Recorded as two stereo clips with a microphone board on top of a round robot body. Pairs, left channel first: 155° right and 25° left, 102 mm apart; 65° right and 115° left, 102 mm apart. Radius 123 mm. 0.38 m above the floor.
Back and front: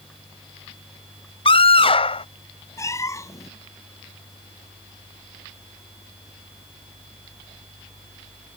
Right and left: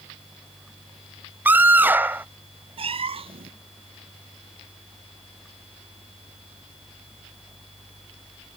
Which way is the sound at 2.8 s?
140° left.